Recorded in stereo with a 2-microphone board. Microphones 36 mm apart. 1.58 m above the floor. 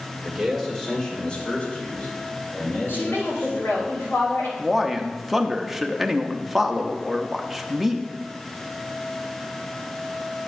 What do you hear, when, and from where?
0.2 s a man speaking: 15° right (ahead or behind), 2 m; by 3.9 s 75° left (ahead or behind), 5 m
2.9 s a woman speaking: 85° left, 3.5 m
4.6 s a man speaking: centre (ahead or behind), 0.7 m